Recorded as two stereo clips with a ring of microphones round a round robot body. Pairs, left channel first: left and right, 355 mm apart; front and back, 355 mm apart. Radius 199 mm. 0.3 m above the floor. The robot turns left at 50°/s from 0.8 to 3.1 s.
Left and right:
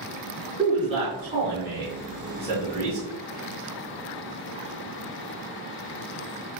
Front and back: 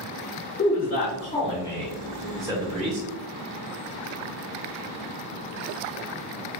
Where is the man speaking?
30° right, 0.9 m; by 3.1 s 140° right, 0.9 m.